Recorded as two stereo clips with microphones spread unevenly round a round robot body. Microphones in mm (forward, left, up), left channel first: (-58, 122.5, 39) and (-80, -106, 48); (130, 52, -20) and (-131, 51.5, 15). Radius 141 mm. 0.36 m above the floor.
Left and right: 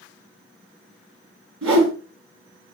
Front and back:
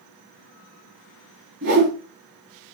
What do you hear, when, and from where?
1.6 s a whoosh: 125° right, 4 m